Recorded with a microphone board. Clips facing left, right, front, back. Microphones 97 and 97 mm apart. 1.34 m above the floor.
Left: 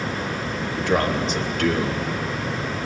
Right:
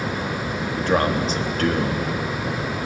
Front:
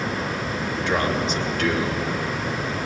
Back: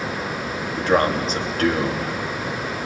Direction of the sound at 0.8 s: 135° right.